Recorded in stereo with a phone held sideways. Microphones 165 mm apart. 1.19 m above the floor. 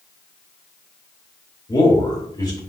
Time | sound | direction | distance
1.7 | a man speaking | 30° left (ahead or behind) | 2.5 m